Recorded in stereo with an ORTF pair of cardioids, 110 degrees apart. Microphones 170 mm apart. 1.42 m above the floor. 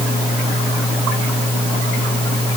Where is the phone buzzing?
I don't hear a phone buzzing.